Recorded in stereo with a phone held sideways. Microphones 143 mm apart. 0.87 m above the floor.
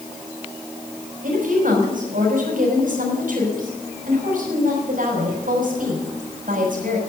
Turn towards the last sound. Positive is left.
turn(degrees=-70)  # may be behind; listen again after turning